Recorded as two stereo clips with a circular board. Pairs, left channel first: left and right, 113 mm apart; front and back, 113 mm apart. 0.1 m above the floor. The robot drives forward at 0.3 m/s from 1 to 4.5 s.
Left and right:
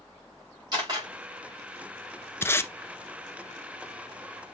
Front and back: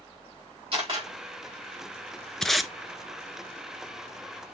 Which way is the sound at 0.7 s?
140° right.